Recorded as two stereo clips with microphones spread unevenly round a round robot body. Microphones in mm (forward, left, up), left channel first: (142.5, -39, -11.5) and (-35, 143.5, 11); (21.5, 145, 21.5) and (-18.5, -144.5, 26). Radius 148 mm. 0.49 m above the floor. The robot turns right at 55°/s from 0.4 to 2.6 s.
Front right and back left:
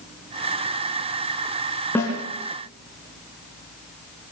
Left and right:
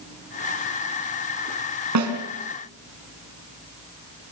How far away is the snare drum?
About 4 m.